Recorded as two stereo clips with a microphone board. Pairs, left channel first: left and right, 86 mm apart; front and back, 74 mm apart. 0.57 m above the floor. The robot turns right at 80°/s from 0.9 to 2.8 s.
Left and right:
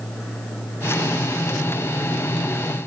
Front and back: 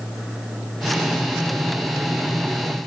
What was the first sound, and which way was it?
Only background noise.